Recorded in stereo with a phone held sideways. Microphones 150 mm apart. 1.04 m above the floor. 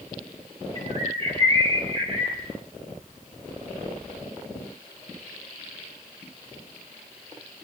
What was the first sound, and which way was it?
A bird, 40° right (ahead or behind).